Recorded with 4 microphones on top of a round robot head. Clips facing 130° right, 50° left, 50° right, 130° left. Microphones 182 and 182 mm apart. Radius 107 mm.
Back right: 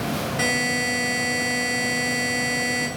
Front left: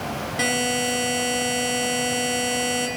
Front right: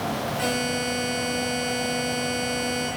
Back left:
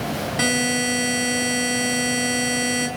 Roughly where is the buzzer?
Behind left.